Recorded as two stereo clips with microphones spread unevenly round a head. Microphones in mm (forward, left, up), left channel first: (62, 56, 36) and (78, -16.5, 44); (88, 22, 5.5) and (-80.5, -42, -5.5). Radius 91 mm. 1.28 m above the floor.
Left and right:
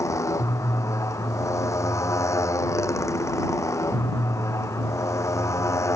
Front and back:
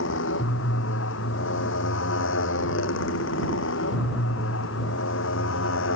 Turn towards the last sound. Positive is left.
turn(degrees=50)